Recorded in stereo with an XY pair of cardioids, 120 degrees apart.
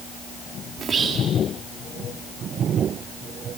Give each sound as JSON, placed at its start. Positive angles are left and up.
{"t": 0.8, "sound": "whispering", "azimuth_deg": -40, "distance_m": 2.5}